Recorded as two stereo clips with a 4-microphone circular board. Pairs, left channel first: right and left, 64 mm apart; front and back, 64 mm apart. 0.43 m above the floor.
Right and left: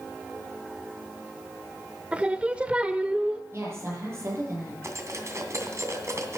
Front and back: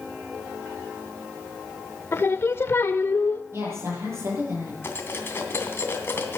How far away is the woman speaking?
About 9 m.